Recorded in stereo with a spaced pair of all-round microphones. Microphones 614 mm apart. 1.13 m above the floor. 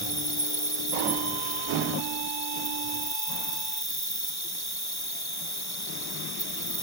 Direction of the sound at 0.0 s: 40° left (ahead or behind).